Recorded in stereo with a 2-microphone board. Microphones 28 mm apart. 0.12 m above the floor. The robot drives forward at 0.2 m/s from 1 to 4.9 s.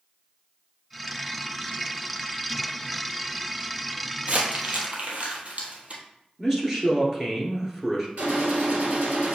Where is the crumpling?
55° right (ahead or behind), 1.2 m; by 6.0 s 50° right (ahead or behind), 1.3 m.